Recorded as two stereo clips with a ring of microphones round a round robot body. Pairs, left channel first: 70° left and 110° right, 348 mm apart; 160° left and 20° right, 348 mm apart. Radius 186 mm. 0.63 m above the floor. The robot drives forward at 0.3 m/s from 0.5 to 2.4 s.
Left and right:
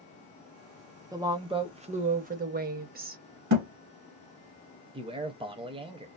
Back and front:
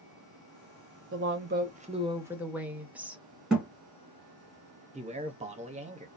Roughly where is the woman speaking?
Ahead right.